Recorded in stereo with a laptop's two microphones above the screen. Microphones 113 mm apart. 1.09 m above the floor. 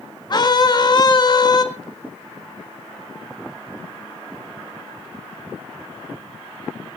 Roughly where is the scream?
Left.